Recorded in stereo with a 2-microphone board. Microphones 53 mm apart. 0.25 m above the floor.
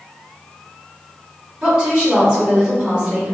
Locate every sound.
1.6 s a woman speaking: 20° right (ahead or behind), 1.9 m